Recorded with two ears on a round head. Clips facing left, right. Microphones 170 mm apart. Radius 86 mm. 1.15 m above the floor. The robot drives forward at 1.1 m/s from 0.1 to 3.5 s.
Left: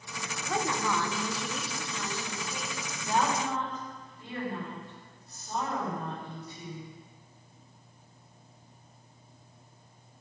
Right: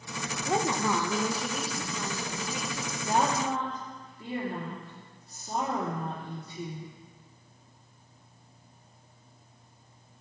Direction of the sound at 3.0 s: 30° right (ahead or behind).